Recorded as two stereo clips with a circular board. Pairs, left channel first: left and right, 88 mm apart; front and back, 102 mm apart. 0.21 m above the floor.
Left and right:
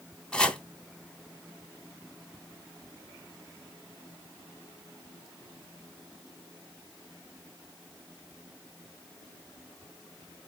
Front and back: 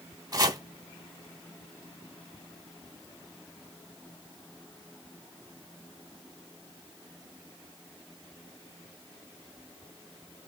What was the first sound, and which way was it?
Chopping, 165° left.